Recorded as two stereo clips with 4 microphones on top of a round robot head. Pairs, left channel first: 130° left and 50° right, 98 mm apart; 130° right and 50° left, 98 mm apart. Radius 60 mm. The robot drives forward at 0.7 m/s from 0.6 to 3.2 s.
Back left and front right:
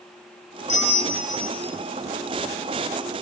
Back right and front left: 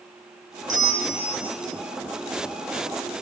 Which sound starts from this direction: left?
A bell, at 0.7 s.